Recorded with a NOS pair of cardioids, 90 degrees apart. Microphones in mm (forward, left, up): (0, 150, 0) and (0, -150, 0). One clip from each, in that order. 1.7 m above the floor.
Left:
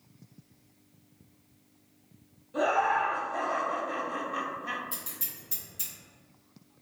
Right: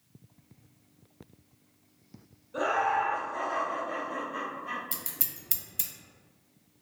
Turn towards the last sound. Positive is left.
turn(degrees=-60)